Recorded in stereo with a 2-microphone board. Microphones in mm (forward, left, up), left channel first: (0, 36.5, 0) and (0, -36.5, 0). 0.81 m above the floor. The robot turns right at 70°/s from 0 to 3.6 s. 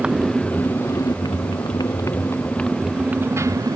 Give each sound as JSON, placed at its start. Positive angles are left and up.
{"t": 0.0, "sound": "a motorcycle", "azimuth_deg": -15}